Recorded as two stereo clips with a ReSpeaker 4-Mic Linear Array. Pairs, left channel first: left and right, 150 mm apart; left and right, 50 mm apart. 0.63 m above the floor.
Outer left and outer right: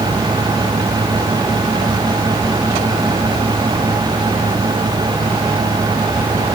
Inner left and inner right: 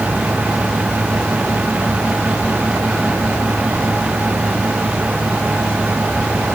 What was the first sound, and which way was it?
Only background noise.